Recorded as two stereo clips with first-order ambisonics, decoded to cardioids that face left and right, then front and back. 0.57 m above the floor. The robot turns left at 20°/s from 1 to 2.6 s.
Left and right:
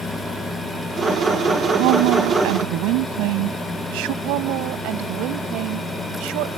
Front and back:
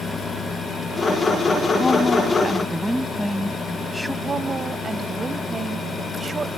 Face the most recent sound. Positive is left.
turn(degrees=-105)